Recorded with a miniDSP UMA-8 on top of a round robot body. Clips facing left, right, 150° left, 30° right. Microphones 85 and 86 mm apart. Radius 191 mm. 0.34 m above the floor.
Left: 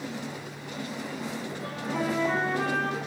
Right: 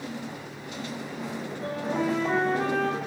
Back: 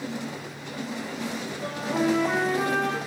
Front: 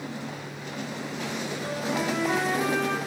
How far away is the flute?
About 2.5 m.